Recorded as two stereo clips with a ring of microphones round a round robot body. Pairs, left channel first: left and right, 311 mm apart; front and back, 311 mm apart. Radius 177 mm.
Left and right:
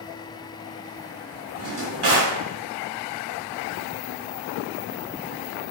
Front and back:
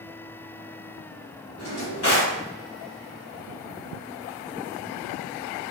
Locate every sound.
1.6 s a drawer: 50° right, 1.6 m